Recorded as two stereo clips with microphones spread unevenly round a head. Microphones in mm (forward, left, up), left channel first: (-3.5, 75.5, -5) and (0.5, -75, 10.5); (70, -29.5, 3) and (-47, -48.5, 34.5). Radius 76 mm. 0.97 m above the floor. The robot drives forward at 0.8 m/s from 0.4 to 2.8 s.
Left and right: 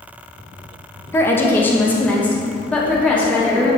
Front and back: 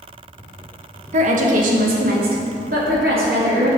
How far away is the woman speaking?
About 0.8 m.